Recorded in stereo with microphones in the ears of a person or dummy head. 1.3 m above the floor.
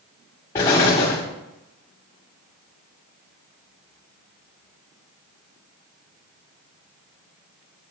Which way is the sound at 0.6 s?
10° left (ahead or behind).